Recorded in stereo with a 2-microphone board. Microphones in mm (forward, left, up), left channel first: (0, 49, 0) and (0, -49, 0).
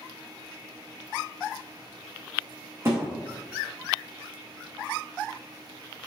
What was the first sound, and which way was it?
A thud, 25° right (ahead or behind).